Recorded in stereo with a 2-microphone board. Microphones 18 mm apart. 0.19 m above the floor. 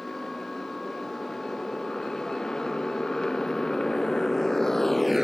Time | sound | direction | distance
0.0 | a motorcycle | 40° left (ahead or behind) | ?